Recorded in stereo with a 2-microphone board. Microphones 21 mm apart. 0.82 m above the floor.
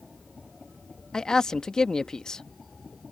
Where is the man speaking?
35° left (ahead or behind).